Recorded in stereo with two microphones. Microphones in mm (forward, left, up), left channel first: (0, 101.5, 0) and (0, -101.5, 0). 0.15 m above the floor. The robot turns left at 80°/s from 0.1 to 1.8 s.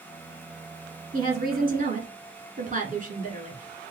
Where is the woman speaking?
65° right, 1.5 m; by 3.6 s 120° right, 1.5 m.